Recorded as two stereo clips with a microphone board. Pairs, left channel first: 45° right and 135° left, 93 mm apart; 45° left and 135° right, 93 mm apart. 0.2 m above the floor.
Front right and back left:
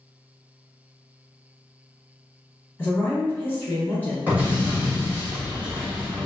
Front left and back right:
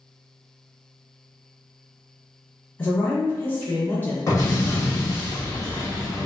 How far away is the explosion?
About 1.9 m.